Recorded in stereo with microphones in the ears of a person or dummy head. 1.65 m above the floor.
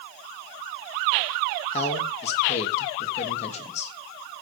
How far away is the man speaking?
About 3 m.